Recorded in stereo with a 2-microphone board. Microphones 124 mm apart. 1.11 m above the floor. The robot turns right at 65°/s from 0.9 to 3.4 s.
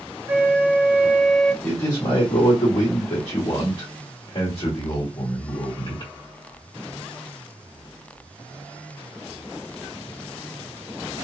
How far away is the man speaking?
About 1.5 m.